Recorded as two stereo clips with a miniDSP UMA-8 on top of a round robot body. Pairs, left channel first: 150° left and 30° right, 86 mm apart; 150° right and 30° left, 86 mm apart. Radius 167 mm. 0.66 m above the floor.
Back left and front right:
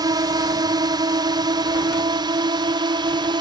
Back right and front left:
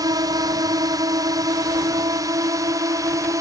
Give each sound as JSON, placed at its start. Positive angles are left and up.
{"t": 0.0, "sound": "a drone", "azimuth_deg": -5}